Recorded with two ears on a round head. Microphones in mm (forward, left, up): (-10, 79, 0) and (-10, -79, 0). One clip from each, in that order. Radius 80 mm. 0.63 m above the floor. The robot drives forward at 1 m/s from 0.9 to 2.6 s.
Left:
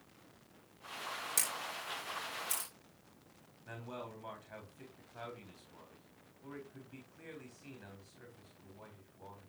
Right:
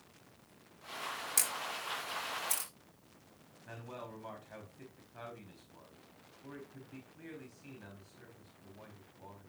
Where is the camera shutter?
5° right (ahead or behind), 3.5 m.